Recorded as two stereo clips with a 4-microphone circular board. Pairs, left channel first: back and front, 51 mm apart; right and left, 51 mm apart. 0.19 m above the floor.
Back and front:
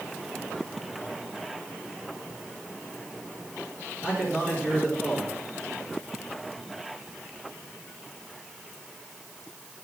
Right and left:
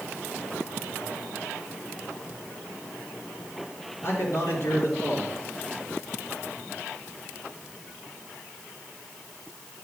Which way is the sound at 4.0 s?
75° right.